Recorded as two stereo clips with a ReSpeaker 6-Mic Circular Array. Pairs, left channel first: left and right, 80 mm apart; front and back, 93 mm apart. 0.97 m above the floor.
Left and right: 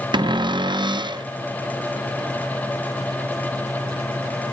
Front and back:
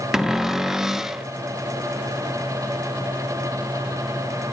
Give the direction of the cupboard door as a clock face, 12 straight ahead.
3 o'clock.